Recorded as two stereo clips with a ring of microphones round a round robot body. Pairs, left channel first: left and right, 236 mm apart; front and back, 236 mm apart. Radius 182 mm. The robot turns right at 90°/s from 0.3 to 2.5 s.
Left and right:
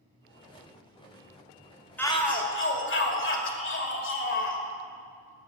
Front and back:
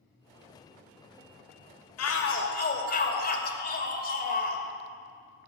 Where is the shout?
5° left, 2.5 m; by 4.6 s 55° left, 2.5 m.